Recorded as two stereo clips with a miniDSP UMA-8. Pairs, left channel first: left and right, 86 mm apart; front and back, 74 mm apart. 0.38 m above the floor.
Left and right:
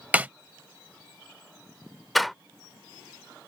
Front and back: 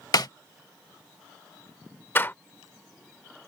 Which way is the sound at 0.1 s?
20° right.